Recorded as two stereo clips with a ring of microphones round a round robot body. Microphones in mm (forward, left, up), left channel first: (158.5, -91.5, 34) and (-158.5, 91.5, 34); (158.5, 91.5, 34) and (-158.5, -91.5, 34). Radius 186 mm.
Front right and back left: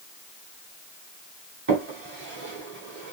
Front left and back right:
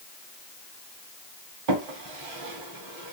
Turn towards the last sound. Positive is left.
turn(degrees=-150)